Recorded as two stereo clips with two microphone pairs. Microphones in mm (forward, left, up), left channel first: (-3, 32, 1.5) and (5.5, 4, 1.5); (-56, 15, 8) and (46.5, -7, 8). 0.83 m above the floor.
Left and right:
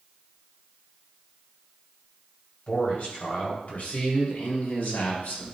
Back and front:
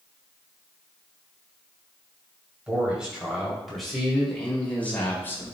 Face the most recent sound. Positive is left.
turn(degrees=105)